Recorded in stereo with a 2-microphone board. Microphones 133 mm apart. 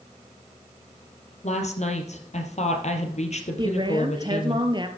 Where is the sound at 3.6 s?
35° right (ahead or behind), 1.8 m.